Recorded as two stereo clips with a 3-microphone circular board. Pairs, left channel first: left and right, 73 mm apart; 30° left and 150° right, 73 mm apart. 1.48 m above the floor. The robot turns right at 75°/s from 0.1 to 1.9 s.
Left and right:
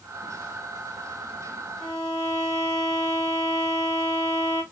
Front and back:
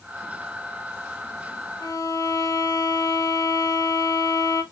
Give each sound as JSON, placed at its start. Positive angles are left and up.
{"t": 1.8, "sound": "a violin", "azimuth_deg": 30, "distance_m": 1.9}